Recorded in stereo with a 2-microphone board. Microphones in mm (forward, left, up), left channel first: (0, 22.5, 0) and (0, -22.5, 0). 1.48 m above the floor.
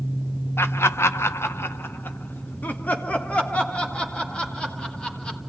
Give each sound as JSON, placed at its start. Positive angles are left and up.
{"t": 0.6, "sound": "laughter", "side_deg": 65, "distance_m": 1.0}